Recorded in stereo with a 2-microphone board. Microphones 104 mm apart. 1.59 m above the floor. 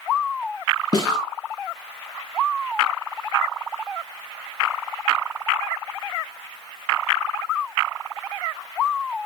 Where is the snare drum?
35° left (ahead or behind), 3.5 m.